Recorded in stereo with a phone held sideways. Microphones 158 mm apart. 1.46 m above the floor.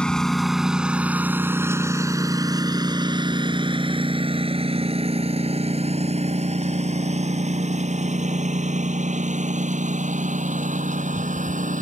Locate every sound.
0.0 s a lawn mower: 5° left (ahead or behind); by 11.8 s 60° right (ahead or behind)